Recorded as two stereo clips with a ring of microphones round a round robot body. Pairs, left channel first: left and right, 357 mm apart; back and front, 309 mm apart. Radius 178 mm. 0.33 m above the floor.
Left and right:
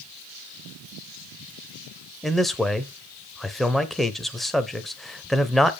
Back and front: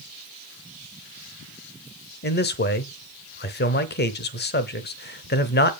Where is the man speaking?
Straight behind, 0.9 m.